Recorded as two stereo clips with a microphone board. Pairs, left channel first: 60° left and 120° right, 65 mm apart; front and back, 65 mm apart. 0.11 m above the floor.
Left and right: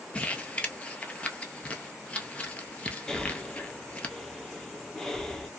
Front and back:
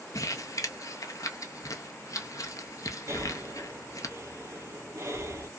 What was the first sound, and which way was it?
Crumpling, 5° right.